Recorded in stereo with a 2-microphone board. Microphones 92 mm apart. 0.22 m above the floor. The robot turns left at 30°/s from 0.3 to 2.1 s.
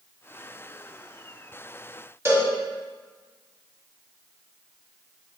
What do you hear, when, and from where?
2.2 s a cowbell: 30° right (ahead or behind), 0.8 m